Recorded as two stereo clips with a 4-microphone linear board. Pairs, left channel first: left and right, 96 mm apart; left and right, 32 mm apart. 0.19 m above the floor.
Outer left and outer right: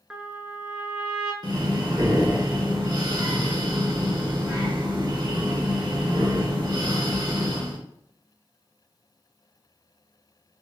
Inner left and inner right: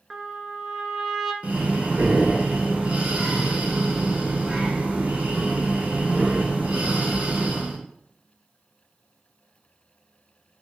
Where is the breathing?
45° right (ahead or behind), 1.0 m.